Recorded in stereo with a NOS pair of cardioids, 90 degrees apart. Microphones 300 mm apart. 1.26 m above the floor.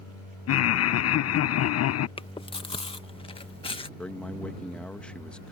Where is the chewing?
20° left.